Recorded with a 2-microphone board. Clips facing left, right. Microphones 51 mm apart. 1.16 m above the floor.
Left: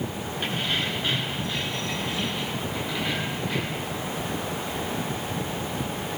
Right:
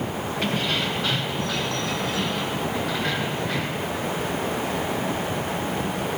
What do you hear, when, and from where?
0.4 s keys jangling: 85° right, 8.5 m; by 3.9 s 80° right, 13 m